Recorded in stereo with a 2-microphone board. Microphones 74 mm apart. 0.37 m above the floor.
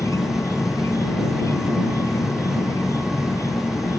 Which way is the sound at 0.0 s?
45° left (ahead or behind).